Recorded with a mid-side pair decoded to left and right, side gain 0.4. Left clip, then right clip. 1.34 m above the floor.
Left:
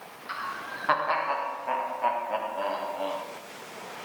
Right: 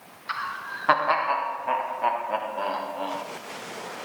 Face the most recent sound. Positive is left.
turn(degrees=-20)